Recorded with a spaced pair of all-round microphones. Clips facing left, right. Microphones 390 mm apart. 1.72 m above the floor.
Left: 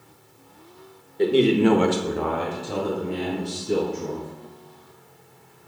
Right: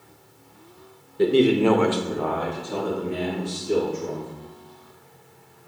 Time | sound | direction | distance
1.2 | a man speaking | 20° right (ahead or behind) | 0.6 m